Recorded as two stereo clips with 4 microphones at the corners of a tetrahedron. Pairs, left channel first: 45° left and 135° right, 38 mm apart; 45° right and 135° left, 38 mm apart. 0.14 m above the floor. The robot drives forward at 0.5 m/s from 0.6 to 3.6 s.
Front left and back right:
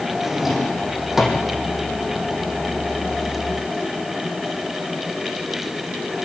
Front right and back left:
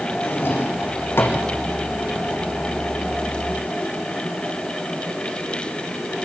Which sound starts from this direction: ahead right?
A drawer, at 0.2 s.